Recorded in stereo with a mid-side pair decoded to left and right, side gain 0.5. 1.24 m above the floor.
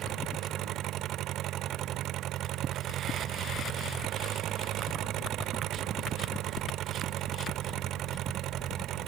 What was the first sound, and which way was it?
An engine running, 65° right.